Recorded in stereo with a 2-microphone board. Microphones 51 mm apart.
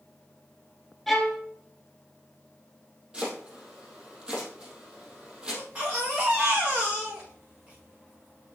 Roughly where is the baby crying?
Right.